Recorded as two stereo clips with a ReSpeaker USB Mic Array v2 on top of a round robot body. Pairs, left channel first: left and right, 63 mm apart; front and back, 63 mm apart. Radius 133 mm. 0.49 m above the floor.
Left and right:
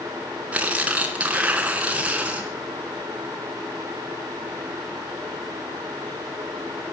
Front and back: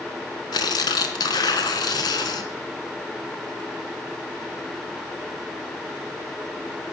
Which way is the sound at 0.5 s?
20° right.